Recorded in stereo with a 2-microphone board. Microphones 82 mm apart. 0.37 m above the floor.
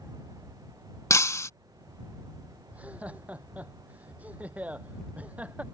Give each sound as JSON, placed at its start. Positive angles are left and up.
{"t": 1.1, "sound": "breaking glass", "side_deg": 40}
{"t": 2.7, "sound": "laughter", "side_deg": -15}